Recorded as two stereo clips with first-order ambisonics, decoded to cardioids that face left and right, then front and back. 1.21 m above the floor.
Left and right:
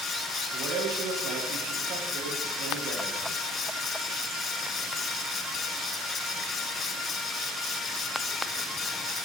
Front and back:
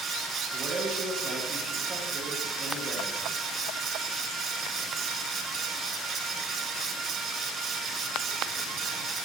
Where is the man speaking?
120° right, 1.4 m.